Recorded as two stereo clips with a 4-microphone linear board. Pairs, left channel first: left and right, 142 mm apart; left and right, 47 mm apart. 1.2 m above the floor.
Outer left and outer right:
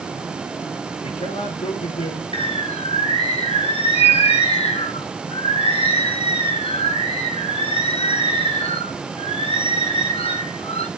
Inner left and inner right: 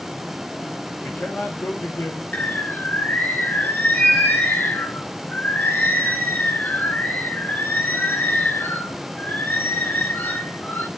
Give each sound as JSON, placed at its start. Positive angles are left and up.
{"t": 1.0, "sound": "a man speaking", "side_deg": 60, "distance_m": 4.0}
{"t": 2.3, "sound": "a bird", "side_deg": 45, "distance_m": 1.4}